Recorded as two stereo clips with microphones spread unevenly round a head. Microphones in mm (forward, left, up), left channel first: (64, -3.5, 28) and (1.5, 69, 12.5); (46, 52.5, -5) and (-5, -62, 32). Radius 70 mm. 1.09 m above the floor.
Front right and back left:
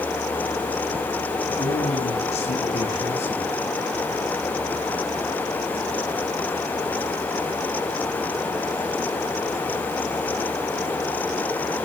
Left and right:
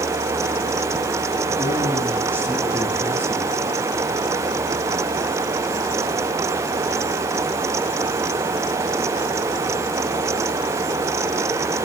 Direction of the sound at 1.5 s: 40° right.